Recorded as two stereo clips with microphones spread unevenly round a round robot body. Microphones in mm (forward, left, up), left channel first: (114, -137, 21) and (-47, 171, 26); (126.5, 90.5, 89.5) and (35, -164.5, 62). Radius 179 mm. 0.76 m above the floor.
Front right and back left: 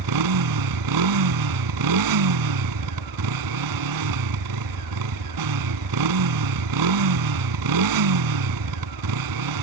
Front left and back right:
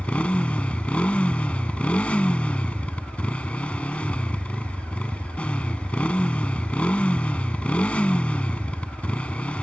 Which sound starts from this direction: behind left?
A motorcycle, at 0.0 s.